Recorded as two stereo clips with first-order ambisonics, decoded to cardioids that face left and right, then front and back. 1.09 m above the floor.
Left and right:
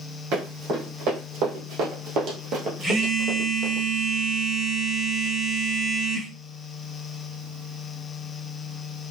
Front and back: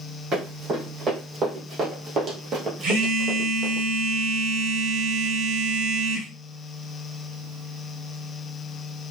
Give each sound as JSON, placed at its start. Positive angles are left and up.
{"t": 0.3, "sound": "running footsteps", "azimuth_deg": -115, "distance_m": 3.0}
{"t": 2.8, "sound": "a phone buzzing", "azimuth_deg": -175, "distance_m": 1.7}